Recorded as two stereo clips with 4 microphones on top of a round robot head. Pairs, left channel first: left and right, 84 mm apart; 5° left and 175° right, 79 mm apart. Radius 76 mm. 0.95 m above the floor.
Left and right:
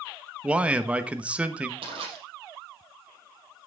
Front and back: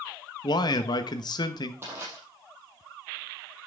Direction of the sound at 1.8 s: 105° right.